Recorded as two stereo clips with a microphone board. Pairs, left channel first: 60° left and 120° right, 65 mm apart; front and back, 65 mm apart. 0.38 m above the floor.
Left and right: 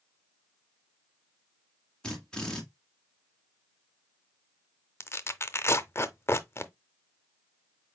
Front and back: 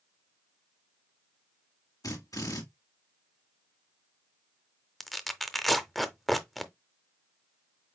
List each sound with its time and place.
2.0 s a drill: 20° right, 1.8 m
5.0 s tearing paper: 90° left, 0.5 m